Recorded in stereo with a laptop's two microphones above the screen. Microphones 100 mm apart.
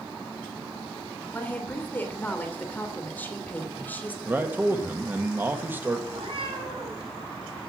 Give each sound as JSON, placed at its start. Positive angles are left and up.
{"t": 1.3, "sound": "a woman speaking", "side_deg": 15, "distance_m": 3.0}
{"t": 4.2, "sound": "a man speaking", "side_deg": -20, "distance_m": 1.5}
{"t": 6.1, "sound": "a cat meowing", "side_deg": -60, "distance_m": 6.5}